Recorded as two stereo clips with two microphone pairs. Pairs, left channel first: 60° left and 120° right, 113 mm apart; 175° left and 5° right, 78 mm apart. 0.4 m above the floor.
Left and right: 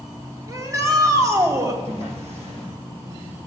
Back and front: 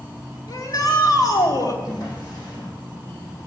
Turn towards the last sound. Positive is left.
turn(degrees=-140)